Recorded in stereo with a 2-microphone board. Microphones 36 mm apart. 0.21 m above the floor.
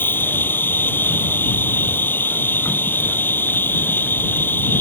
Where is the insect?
75° left (ahead or behind).